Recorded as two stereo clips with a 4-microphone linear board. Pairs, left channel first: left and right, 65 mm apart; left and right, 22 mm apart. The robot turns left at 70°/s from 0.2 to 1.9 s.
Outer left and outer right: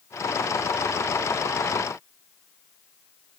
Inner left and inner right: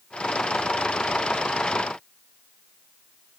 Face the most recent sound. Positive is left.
No sound to turn to.